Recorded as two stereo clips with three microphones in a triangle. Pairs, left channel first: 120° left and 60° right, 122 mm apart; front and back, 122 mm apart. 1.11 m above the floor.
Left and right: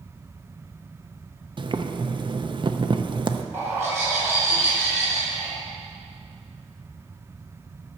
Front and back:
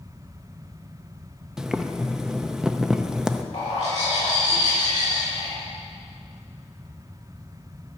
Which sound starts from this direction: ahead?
A bird, at 3.5 s.